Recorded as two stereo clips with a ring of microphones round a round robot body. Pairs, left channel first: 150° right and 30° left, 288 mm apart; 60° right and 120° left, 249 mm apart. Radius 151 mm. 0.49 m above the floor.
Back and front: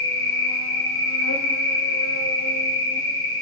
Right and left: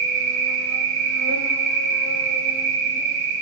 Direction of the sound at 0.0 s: 165° left.